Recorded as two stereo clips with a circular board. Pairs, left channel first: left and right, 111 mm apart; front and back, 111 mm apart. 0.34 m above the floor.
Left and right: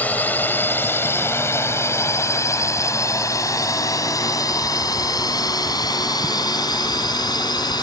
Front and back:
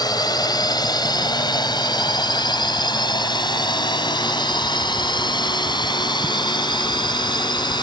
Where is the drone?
25° left; by 7.8 s 45° left.